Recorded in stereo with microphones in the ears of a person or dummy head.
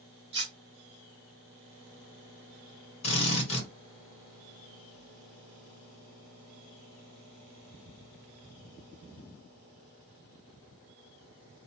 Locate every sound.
0.3 s cutlery clinking: 30° right (ahead or behind), 0.7 m
3.0 s a drill: 40° left (ahead or behind), 1.4 m